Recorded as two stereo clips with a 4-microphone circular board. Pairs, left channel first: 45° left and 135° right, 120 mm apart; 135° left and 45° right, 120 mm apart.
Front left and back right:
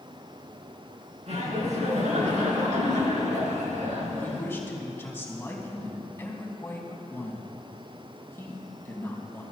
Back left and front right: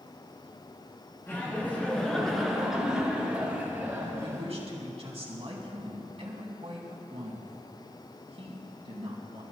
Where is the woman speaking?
25° right, 3 m.